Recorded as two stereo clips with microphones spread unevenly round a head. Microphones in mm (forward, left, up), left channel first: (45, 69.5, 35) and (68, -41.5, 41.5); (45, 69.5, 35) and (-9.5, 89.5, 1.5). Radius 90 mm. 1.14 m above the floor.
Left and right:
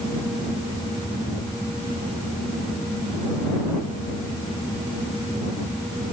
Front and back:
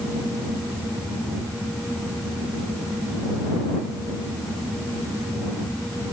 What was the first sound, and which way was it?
Only background noise.